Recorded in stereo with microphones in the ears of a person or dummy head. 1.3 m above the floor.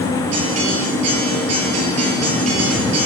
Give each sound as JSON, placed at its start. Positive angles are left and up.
{"t": 0.3, "sound": "a guitar", "side_deg": -35, "distance_m": 8.5}